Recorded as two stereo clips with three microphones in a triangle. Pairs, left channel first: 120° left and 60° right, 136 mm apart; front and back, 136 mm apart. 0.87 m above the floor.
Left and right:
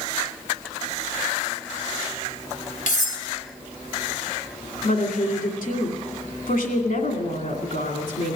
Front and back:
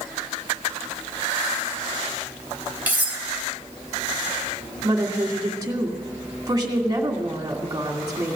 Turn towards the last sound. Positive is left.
turn(degrees=120)